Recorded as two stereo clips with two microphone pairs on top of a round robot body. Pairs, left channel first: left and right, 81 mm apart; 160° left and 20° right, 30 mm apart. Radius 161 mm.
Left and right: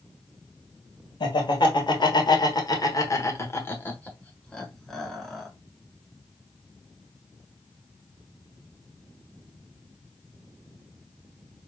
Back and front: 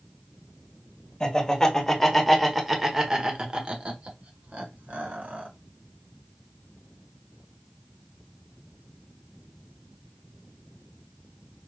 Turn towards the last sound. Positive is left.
turn(degrees=-5)